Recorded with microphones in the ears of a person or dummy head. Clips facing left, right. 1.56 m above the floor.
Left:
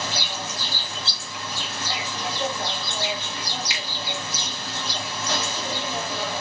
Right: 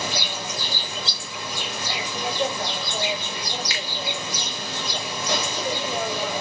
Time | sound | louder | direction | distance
0.0 | an insect | right 1 dB | 10° right (ahead or behind) | 0.7 m
3.7 | a finger snap | right 2 dB | 20° left (ahead or behind) | 0.9 m